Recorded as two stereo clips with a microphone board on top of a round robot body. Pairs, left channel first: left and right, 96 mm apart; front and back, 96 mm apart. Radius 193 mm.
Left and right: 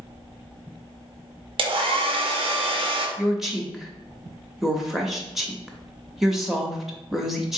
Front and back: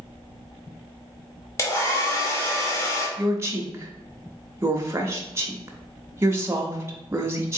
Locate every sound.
1.6 s a hair dryer: 60° right, 0.7 m
3.2 s a woman speaking: 170° right, 0.9 m